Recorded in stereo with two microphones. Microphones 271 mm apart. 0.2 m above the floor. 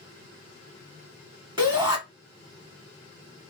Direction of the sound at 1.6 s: 20° right (ahead or behind).